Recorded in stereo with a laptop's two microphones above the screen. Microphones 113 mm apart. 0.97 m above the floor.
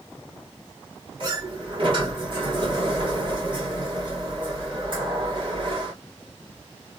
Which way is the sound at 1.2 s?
45° right (ahead or behind).